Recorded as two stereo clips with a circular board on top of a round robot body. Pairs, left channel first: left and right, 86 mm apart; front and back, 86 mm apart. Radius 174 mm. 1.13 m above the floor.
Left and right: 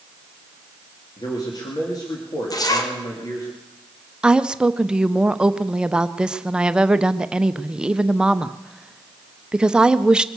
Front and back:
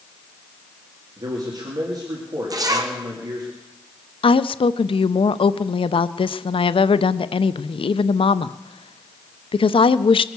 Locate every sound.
1.2 s a man speaking: 135° left, 2.5 m
2.5 s a zipper: 135° left, 1.7 m
4.2 s a woman speaking: 10° right, 0.6 m